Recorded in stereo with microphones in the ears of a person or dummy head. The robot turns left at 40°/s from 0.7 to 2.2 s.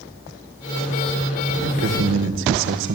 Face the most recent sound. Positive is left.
turn(degrees=-70)  # may be behind; listen again after turning